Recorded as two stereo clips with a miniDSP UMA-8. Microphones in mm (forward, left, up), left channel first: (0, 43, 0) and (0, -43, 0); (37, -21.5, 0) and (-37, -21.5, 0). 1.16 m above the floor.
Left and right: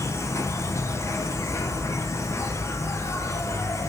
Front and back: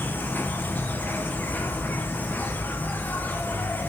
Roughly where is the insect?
Ahead left.